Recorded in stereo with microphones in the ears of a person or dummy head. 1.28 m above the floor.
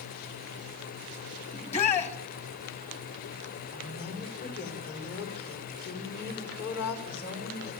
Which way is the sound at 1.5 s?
35° left (ahead or behind).